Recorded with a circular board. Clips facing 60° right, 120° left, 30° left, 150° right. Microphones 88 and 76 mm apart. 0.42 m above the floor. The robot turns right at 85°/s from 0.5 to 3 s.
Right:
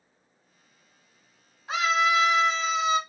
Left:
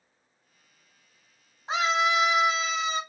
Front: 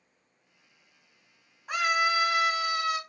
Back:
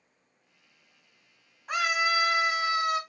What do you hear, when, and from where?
1.7 s a scream: 115° left, 1.1 m; by 3.0 s 135° right, 1.1 m